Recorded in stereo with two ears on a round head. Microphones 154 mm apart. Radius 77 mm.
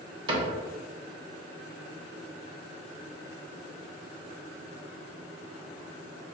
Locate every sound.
0.3 s a cupboard door: 30° right (ahead or behind), 1.4 m